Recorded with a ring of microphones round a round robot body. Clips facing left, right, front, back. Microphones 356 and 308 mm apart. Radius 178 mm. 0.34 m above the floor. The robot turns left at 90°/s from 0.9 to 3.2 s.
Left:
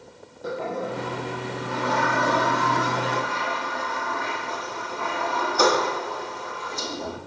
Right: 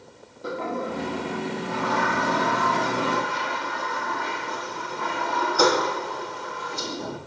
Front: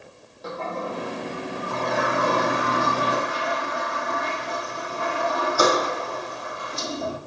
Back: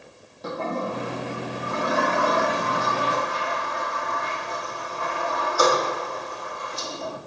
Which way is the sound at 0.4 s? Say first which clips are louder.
Even, back 2 dB; 175° right.